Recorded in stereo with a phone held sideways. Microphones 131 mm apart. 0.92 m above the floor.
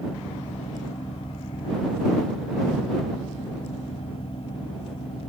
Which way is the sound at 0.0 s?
45° left (ahead or behind).